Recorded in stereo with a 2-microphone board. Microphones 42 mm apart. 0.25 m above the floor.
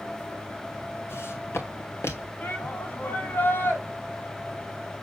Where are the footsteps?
85° left, 1.9 m; by 2.3 s 80° left, 2.5 m.